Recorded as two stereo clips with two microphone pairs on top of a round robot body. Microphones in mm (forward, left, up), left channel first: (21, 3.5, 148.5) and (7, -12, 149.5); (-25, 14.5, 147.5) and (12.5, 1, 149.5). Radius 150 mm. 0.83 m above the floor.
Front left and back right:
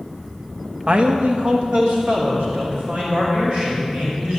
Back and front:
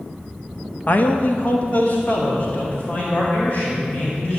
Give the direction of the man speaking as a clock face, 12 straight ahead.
5 o'clock.